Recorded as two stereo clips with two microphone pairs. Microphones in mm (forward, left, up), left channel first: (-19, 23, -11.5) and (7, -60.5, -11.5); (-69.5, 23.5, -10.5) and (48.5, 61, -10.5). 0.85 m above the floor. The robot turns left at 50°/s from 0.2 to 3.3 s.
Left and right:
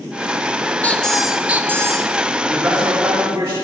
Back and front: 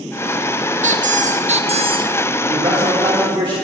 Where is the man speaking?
15° left, 1.9 m; by 3.5 s 30° right, 1.9 m.